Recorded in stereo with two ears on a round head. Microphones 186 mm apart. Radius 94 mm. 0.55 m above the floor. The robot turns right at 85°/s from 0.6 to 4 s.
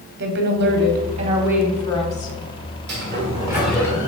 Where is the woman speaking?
90° right, 1.1 m; by 2.4 s 60° left, 1.1 m.